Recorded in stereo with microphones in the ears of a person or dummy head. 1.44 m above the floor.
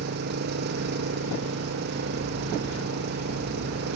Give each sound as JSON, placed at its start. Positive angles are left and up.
{"t": 0.0, "sound": "an engine running", "side_deg": -60}